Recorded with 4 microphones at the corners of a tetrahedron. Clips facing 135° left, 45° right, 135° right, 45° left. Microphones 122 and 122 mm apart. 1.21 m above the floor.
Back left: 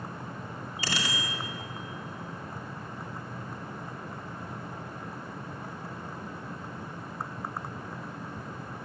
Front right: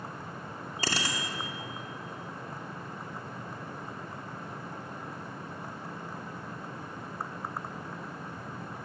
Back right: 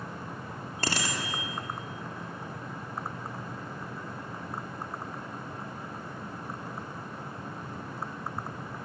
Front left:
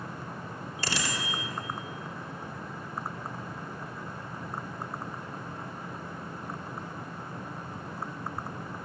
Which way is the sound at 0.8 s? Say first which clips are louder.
Front right 1 dB, back right 2 dB; 95° right.